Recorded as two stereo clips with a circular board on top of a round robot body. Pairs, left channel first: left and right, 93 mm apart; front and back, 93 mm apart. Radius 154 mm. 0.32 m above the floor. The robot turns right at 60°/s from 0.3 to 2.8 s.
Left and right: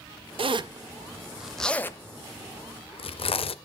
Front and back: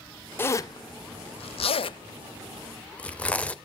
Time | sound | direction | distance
0.4 | a zipper | 70° right | 0.5 m